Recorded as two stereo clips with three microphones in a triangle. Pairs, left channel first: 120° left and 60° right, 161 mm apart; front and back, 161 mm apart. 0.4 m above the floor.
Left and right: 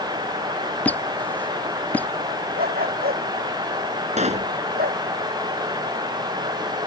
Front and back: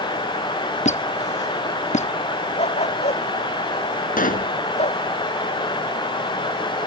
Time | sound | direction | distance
0.8 | a squeak | 40° left | ?
2.6 | a dog barking | 45° right | ?
4.2 | a pop | 20° right | ?